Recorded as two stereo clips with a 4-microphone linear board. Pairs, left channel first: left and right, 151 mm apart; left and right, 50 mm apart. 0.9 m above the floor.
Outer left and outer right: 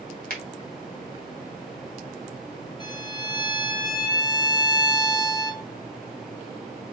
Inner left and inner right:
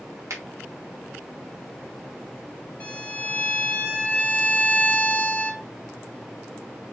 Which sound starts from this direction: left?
A violin, at 2.8 s.